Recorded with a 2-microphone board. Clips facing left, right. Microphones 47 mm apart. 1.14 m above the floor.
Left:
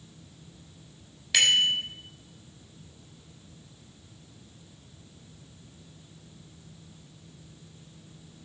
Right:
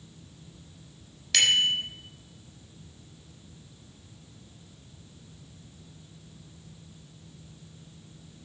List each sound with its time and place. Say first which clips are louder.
1.3 s a bicycle bell: left 1 dB; 10° left (ahead or behind), 4 m